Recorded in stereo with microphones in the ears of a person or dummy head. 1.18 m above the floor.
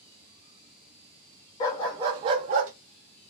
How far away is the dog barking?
About 0.6 m.